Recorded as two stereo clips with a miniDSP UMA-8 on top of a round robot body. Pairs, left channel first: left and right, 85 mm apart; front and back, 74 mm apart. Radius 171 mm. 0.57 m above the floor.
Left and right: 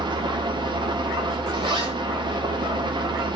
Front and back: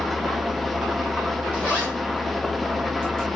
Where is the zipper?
65° right, 7.5 m.